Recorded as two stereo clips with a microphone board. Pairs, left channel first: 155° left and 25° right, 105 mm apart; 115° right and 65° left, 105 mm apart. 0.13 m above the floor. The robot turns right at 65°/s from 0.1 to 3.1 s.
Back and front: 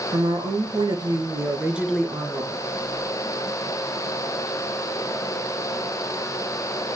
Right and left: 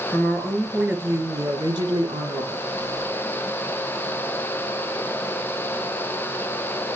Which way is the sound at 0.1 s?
50° right.